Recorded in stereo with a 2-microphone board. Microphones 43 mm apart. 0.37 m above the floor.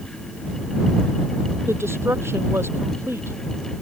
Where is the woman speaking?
75° right (ahead or behind).